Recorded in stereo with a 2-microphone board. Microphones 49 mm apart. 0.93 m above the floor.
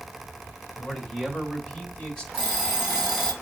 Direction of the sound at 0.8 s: 5° left (ahead or behind).